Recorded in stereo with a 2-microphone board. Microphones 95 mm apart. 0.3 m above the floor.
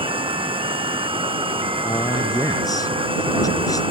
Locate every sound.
0.0 s running water: 70° right (ahead or behind)
1.9 s a man speaking: 40° left (ahead or behind)